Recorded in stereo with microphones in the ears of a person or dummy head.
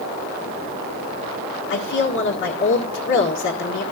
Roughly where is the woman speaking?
Left.